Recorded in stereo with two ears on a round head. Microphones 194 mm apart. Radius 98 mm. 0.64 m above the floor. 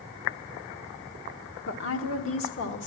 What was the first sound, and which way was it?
A woman speaking, 55° left (ahead or behind).